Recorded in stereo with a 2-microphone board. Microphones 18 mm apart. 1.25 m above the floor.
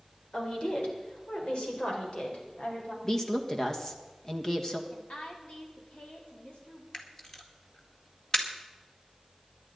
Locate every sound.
0.3 s a woman speaking: 50° left (ahead or behind), 4 m; by 2.9 s 80° left, 5 m
3.0 s a woman speaking: 20° left (ahead or behind), 1.6 m
4.9 s a woman speaking: 85° left, 4 m
6.9 s a camera shutter: 35° left (ahead or behind), 2.0 m